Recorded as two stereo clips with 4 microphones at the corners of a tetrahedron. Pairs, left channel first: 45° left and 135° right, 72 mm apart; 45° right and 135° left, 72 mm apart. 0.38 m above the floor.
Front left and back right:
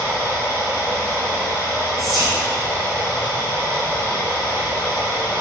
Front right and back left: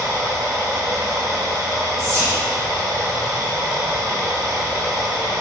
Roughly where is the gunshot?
No gunshot in this recording.